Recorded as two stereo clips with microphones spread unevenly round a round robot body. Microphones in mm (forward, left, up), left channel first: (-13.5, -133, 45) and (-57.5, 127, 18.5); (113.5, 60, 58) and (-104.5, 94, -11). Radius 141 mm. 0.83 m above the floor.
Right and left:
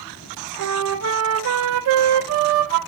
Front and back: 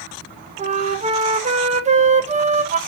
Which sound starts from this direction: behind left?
A flute, at 0.6 s.